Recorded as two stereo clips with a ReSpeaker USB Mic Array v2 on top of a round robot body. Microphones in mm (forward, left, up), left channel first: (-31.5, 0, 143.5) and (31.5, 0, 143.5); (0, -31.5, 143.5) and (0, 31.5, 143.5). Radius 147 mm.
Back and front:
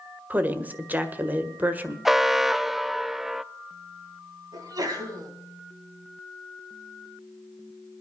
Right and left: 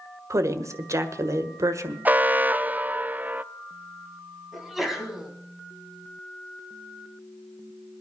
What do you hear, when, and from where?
0.3 s a woman speaking: 60° left, 1.6 m
2.0 s an alarm: 80° left, 0.7 m
4.5 s a sneeze: straight ahead, 3.5 m